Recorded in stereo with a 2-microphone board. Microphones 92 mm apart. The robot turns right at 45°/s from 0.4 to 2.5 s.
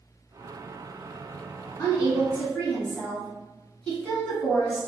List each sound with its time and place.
1.8 s a woman speaking: 130° left, 2.0 m; by 4.9 s 165° left, 2.0 m